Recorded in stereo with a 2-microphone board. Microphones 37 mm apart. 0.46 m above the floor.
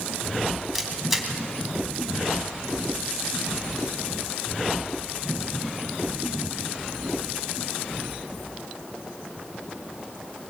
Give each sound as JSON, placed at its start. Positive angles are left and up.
{"t": 0.8, "sound": "a camera shutter", "side_deg": -5, "distance_m": 3.0}